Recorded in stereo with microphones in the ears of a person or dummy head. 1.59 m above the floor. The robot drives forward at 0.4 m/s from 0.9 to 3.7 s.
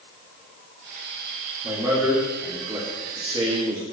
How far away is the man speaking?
About 1.9 m.